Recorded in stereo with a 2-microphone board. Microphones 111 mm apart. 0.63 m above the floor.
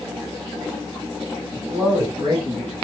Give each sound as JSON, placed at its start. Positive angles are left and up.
{"t": 1.5, "sound": "a man speaking", "side_deg": -40, "distance_m": 3.0}